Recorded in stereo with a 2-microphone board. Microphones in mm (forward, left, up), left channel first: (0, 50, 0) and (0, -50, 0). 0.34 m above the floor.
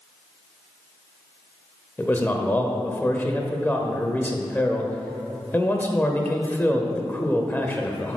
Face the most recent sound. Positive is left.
turn(degrees=20)  # may be behind; listen again after turning